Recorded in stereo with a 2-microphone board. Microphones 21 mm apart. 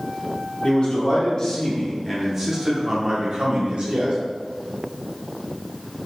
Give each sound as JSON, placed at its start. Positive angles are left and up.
{"t": 0.6, "sound": "a man speaking", "side_deg": 50, "distance_m": 1.1}